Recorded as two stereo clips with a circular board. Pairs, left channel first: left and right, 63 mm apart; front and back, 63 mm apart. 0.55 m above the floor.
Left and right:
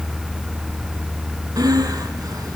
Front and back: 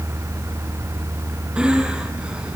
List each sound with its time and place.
1.6 s breathing: 105° right, 1.9 m